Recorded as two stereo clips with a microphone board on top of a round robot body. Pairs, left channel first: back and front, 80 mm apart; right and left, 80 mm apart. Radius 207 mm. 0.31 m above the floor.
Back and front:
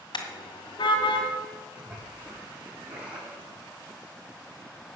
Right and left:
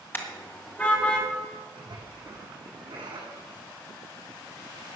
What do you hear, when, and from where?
0.1 s a car horn: 155° right, 2 m; by 1.3 s 165° right, 2.5 m
1.8 s a splash: 70° left, 6 m